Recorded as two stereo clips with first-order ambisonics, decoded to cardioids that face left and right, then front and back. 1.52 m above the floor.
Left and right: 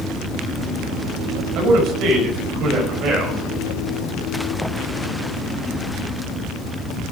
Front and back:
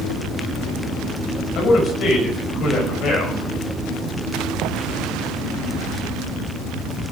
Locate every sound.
1.6 s a man speaking: 45° right, 6.5 m